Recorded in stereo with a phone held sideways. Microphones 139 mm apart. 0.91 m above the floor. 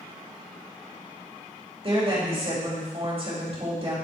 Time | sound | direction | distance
1.8 | a woman speaking | 45° right (ahead or behind) | 3 m